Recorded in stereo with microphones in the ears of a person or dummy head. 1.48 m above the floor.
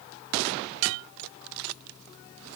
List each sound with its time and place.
Only background noise.